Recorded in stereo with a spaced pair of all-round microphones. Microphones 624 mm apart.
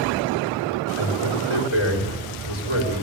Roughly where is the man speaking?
Left.